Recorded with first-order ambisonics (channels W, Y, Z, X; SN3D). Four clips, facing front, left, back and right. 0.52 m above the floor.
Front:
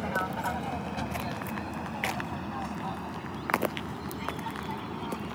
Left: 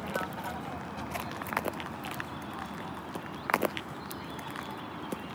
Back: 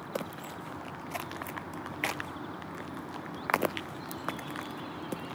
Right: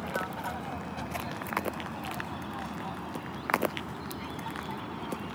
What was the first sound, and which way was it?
An aircraft, 5° right.